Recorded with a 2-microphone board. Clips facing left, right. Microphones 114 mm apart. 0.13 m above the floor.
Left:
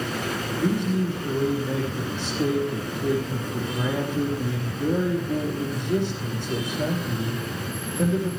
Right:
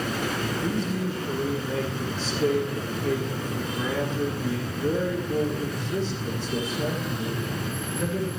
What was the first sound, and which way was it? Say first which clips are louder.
A man speaking: left 8 dB; 60° left (ahead or behind).